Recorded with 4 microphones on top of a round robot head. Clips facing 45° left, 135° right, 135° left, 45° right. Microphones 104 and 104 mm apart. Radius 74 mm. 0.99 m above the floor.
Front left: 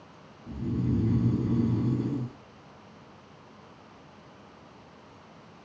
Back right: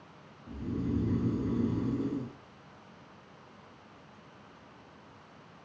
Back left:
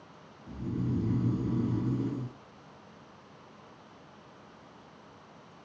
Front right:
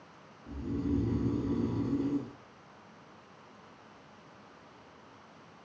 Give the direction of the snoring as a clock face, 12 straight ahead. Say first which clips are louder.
Front left 4 dB, front right 1 dB; 11 o'clock.